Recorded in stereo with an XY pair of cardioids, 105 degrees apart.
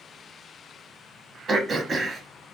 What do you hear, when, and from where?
1.5 s throat clearing: 40° right, 1.0 m